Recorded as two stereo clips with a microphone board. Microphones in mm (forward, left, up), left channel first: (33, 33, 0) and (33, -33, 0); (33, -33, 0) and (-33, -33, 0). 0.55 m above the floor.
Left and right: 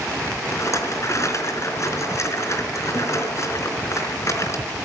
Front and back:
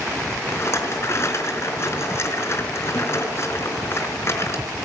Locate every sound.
0.5 s a rattle: 45° left, 4 m